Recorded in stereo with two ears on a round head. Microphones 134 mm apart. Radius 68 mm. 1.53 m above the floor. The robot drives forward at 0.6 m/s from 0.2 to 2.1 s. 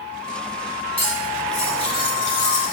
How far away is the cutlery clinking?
About 3.5 m.